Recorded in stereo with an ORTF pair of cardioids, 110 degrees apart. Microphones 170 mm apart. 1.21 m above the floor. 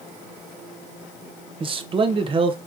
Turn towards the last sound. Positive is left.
turn(degrees=-30)